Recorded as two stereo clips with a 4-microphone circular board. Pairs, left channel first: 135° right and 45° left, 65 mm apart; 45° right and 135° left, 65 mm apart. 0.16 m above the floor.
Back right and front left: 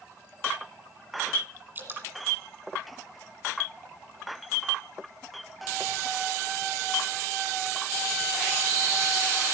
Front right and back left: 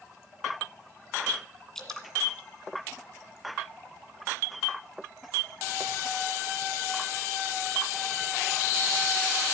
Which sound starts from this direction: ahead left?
Dripping, at 1.8 s.